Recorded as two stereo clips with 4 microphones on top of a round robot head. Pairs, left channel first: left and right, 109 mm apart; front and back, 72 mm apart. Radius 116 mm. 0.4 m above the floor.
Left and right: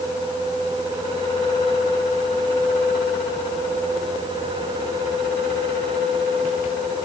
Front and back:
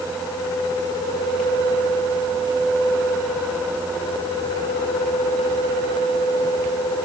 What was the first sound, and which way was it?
Only background noise.